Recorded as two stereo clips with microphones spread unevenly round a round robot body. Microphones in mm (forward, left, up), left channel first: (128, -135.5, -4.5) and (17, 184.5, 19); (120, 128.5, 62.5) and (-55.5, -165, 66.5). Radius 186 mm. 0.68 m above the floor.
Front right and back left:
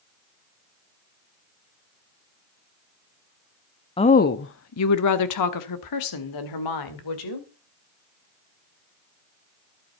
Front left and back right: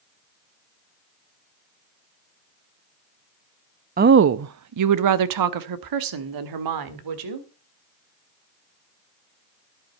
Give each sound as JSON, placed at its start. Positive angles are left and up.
{"t": 4.0, "sound": "a woman speaking", "azimuth_deg": -105, "distance_m": 0.5}